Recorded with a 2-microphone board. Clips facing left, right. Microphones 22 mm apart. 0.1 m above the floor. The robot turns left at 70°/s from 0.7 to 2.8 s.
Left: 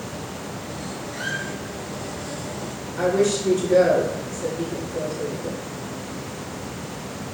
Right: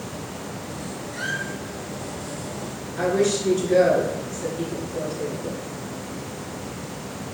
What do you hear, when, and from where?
1.1 s a squeak: centre (ahead or behind), 1.2 m; by 1.4 s 10° left (ahead or behind), 1.2 m
3.0 s a woman speaking: 15° right (ahead or behind), 1.5 m